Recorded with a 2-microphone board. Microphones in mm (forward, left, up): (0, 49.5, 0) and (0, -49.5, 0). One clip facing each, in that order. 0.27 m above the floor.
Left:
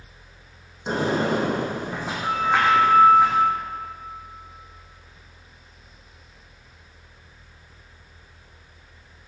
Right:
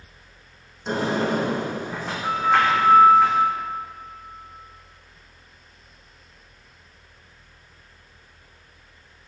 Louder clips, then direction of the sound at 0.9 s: Left 1 dB; 15° left (ahead or behind).